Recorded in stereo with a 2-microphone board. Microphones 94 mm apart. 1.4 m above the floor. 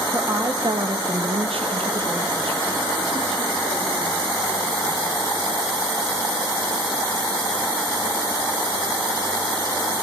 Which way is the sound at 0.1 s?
20° right (ahead or behind).